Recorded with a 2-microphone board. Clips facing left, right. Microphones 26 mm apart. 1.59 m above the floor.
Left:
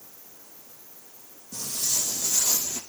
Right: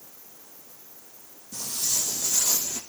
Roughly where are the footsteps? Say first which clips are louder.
Even; centre.